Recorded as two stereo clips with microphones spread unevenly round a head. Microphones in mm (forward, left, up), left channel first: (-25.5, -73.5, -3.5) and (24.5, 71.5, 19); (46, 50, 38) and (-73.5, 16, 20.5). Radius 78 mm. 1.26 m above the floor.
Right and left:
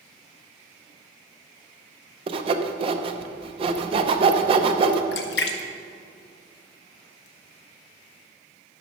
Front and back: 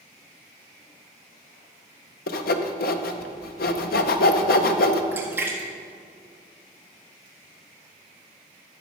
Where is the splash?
85° right, 0.9 m.